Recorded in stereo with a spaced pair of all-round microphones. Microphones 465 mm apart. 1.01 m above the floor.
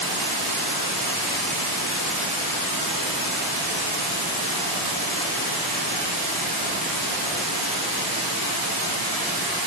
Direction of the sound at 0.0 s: 55° right (ahead or behind).